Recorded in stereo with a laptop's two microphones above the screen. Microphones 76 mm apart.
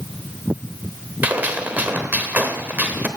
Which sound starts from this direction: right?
A gunshot, at 1.2 s.